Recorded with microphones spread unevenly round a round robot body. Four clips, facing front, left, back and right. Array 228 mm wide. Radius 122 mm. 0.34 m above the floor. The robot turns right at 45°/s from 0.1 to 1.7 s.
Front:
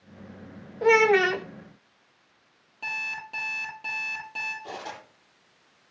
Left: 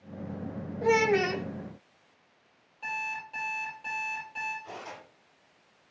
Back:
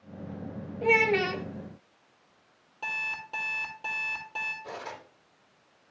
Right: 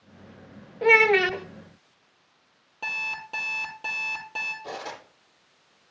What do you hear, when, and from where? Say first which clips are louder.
0.8 s a child speaking: right 4 dB, front 6 dB; 45° right, 1.1 m; by 1.4 s 15° right, 1.1 m
2.8 s an alarm clock: even, front 1 dB; 85° right, 7 m
4.6 s cutlery clinking: right 6 dB, front 2 dB; 60° right, 8.5 m